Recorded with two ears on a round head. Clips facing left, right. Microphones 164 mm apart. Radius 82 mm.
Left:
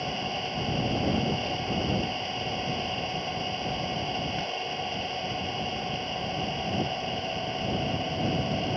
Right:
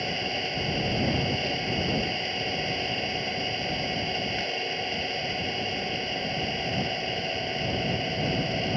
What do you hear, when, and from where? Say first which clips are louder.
0.0 s an engine running: right 1 dB; 25° right (ahead or behind)